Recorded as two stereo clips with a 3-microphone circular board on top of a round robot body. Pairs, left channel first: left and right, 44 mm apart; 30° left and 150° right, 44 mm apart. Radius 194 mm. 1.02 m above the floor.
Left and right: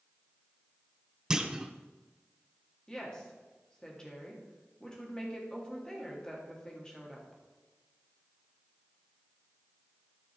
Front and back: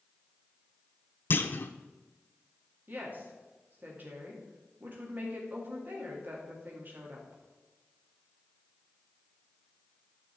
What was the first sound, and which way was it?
A clunk, 15° right.